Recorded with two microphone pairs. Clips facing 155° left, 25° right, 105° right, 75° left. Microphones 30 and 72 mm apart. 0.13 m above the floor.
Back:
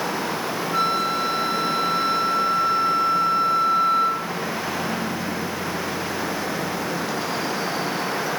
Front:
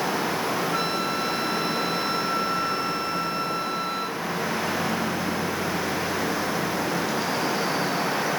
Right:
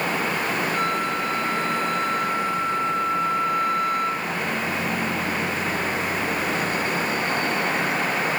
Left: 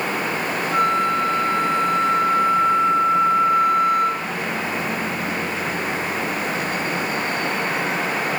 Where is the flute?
55° left, 2.0 m.